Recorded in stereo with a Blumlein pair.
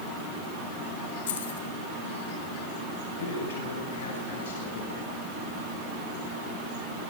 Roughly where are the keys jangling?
Ahead left.